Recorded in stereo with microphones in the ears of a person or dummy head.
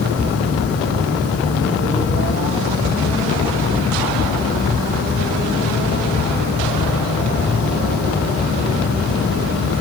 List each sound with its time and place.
0.0 s a fan: 55° left (ahead or behind), 2.5 m